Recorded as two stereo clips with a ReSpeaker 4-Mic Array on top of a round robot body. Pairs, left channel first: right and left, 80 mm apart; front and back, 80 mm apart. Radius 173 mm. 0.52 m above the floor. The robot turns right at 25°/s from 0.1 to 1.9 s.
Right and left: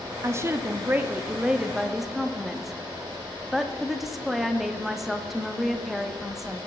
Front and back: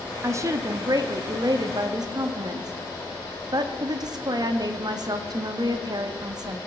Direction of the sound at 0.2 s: 135° left.